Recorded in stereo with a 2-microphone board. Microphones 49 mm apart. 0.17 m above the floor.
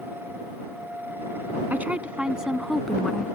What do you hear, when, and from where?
1.7 s a woman speaking: 40° right (ahead or behind); by 3.3 s 15° left (ahead or behind)